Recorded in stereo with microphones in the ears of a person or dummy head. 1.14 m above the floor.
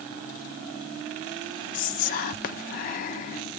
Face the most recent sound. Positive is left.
turn(degrees=40)  # may be behind; listen again after turning